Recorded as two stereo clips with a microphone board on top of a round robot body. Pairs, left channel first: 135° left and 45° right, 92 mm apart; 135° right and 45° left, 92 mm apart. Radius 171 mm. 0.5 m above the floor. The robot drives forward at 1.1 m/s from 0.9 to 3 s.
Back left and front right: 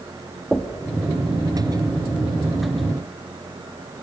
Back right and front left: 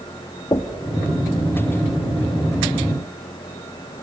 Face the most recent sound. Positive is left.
turn(degrees=-170)